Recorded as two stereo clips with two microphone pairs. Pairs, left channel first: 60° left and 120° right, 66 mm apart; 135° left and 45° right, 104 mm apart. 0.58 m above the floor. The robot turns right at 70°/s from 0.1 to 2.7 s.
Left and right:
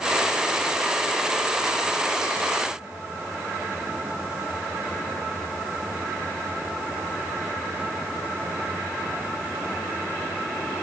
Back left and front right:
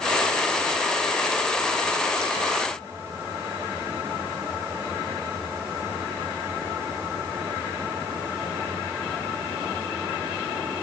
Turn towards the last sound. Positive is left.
No sound to turn to.